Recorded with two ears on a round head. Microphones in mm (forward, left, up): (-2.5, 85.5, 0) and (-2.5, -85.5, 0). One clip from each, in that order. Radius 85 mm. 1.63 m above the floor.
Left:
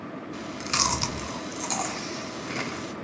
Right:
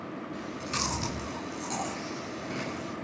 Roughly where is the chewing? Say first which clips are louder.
Left 7 dB; left.